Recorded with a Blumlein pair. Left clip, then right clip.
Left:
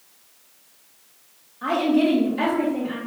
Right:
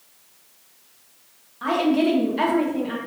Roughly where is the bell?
I don't hear a bell.